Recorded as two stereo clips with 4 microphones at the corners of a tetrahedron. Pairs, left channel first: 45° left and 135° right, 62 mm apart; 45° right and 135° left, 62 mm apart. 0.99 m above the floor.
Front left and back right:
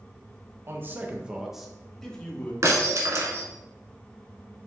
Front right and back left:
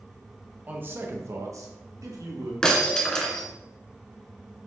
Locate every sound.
0.7 s a man speaking: 170° right, 1.1 m; by 2.5 s 115° left, 1.8 m
2.6 s breaking glass: 120° right, 1.4 m